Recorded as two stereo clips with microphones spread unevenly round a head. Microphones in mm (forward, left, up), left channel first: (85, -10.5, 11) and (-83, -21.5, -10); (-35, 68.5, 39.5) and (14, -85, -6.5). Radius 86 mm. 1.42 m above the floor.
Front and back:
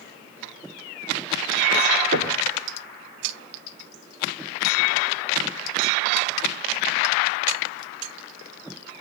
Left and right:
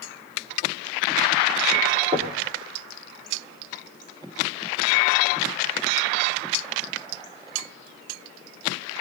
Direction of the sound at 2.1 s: 140° right.